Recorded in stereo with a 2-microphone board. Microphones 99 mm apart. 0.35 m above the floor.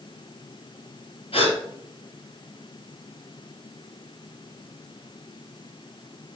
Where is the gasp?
75° left (ahead or behind), 3.5 m.